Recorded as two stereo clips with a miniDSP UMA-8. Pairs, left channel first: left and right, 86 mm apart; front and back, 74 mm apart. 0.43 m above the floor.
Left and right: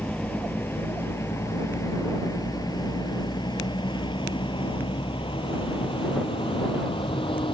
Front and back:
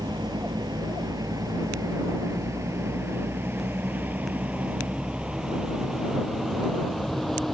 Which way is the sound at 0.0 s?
165° left.